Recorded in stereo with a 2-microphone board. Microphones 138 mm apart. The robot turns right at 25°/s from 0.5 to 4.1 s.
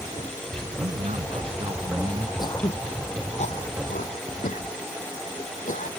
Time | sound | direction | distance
0.8 | a man speaking | 65° right | ?
2.4 | throat clearing | 30° left (ahead or behind) | ?